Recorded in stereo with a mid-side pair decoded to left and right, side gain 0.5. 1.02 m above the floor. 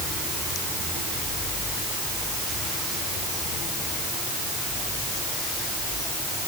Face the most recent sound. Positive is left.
No sound to turn to.